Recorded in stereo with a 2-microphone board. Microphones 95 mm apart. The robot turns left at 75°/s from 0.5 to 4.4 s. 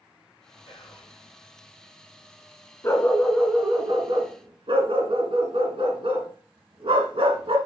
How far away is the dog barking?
About 1.7 m.